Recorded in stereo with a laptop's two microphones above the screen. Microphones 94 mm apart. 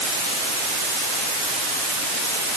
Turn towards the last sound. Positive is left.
No sound to turn to.